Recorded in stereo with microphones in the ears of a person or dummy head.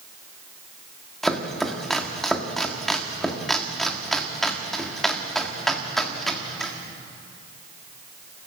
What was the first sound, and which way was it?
Chopping, 5° right (ahead or behind).